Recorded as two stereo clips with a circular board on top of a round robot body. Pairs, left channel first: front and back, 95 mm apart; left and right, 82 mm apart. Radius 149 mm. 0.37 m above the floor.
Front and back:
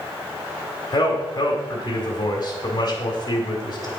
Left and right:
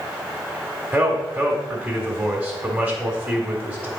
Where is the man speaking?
20° right, 1.6 m.